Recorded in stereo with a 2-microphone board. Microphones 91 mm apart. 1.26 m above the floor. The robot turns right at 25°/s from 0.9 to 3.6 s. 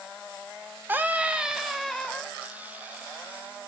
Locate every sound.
0.9 s a scream: 20° right, 0.6 m; by 2.3 s 15° left, 0.6 m